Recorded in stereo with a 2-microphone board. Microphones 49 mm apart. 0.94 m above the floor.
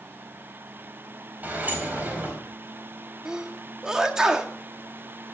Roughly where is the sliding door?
Right.